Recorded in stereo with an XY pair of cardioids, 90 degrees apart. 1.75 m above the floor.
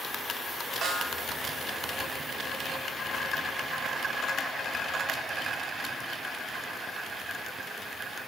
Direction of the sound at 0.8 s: 70° right.